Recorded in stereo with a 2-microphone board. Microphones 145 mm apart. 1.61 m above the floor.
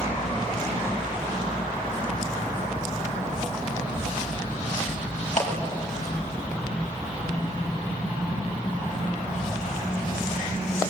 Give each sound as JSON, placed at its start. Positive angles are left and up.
{"t": 5.4, "sound": "a clap", "side_deg": 55, "distance_m": 6.5}